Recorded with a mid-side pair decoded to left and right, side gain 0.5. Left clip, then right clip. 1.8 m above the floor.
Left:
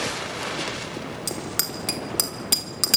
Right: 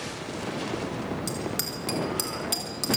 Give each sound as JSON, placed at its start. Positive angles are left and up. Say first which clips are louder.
{"t": 1.3, "sound": "a bicycle bell", "louder": "left 2 dB", "azimuth_deg": 35, "distance_m": 3.5}